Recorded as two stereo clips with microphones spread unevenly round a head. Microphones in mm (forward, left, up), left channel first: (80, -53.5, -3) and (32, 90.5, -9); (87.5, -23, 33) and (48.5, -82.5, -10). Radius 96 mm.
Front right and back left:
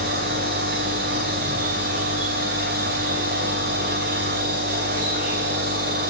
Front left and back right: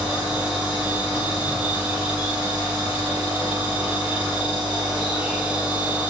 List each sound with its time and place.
0.0 s a machine running: 155° left, 4.5 m